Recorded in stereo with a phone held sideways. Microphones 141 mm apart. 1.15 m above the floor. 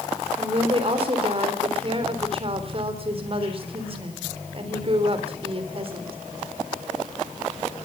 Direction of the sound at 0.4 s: 40° right (ahead or behind).